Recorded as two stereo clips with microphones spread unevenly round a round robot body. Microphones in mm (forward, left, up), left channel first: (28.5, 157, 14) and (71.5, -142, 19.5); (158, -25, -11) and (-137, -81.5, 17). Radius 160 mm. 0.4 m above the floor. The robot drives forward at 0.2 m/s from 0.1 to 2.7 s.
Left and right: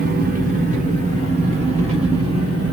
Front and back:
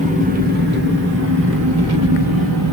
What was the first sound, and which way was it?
An engine running, 115° right.